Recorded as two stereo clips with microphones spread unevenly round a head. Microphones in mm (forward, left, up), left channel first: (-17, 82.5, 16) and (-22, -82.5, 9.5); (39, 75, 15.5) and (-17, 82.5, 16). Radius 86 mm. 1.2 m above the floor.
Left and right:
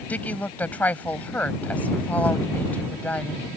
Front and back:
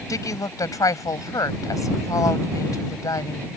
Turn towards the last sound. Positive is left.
turn(degrees=5)